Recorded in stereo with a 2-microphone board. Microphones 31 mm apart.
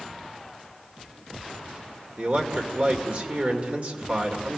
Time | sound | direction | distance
2.2 | a man speaking | 50° right (ahead or behind) | 2.5 m